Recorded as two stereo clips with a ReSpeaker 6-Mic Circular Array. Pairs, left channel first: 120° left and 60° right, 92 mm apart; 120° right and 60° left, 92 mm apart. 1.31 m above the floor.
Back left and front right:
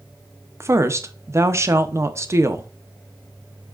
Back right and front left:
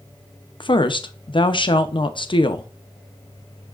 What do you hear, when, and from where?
0.6 s a woman speaking: 115° right, 0.6 m